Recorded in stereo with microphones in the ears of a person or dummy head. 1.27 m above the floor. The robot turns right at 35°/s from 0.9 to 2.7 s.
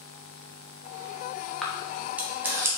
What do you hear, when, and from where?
1.6 s a camera shutter: centre (ahead or behind), 0.5 m; by 2.7 s 15° right (ahead or behind), 0.5 m